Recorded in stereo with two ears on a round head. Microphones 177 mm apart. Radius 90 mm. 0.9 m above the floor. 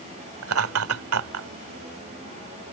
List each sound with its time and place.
0.4 s laughter: 70° right (ahead or behind)